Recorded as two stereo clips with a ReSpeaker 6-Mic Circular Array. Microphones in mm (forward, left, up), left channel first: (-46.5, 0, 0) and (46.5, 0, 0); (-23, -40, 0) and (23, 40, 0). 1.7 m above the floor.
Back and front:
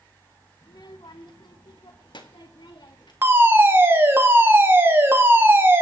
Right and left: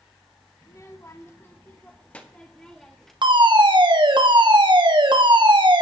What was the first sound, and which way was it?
A child speaking, 160° right.